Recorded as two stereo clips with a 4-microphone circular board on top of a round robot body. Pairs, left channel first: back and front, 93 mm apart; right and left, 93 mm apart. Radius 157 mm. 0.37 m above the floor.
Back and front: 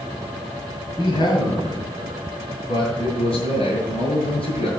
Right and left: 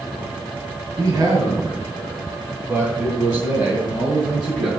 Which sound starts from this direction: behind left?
A man speaking, at 1.0 s.